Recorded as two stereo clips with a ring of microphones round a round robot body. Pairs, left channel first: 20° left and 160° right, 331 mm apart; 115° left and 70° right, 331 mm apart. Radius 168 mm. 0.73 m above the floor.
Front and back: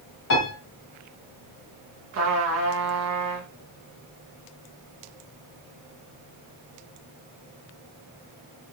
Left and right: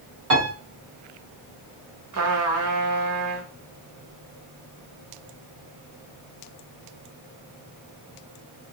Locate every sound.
0.3 s a piano: 25° right, 1.9 m
2.1 s a trumpet: 110° right, 0.8 m